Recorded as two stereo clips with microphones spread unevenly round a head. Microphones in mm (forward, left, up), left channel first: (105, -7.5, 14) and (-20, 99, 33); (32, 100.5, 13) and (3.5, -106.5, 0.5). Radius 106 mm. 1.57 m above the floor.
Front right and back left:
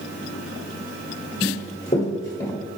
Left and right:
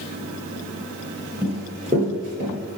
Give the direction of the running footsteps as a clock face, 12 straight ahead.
1 o'clock.